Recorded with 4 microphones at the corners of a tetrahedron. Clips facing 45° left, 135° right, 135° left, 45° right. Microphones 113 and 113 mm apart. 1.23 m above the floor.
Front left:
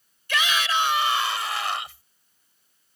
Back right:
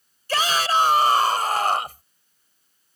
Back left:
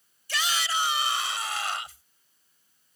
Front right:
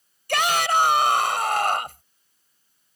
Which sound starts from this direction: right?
A shout, at 0.3 s.